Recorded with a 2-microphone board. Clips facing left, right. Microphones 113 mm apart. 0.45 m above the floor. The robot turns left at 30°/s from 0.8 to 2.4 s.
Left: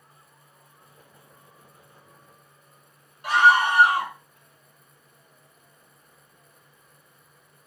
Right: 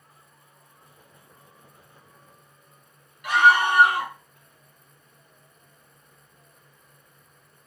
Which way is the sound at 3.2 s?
35° left (ahead or behind).